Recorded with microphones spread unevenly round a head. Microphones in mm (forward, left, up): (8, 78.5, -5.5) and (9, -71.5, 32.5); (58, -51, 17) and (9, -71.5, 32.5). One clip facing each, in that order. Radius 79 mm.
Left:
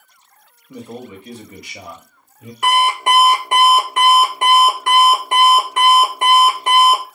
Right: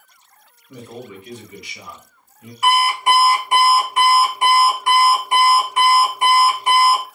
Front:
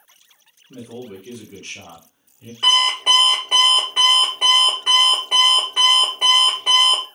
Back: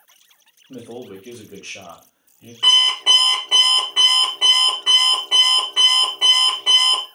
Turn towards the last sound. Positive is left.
turn(degrees=130)